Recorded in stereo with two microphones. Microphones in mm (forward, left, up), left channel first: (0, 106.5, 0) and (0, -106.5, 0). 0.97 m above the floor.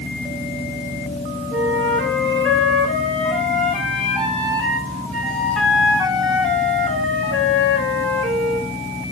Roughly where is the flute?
Centre.